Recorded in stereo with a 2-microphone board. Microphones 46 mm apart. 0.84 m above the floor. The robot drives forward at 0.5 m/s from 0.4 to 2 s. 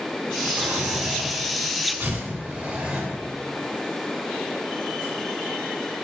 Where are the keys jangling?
I don't hear keys jangling.